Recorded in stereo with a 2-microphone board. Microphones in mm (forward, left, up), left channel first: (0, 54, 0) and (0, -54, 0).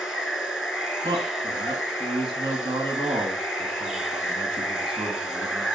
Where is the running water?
5° right (ahead or behind), 1.1 m.